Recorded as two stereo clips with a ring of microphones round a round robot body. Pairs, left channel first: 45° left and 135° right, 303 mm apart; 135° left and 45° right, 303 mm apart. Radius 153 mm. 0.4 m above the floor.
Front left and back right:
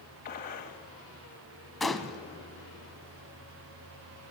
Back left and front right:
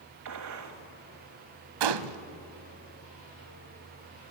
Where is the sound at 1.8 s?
45° right, 0.9 m.